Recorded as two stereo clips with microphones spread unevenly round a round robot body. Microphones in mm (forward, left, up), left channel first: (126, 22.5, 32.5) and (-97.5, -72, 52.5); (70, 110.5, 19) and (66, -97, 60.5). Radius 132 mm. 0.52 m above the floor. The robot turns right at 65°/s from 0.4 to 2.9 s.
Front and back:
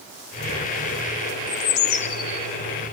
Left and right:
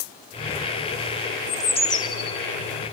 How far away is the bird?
About 3 m.